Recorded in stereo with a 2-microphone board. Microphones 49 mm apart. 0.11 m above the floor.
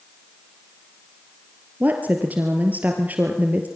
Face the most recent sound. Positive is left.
turn(degrees=-35)  # may be behind; listen again after turning